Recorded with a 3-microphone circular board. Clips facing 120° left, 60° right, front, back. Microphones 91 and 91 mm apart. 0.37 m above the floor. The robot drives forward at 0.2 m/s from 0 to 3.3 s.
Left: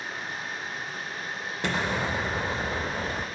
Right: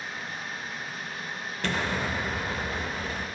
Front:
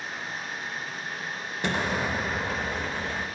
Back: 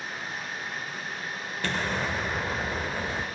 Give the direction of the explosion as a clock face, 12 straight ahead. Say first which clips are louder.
Left 1 dB, front 2 dB; 10 o'clock.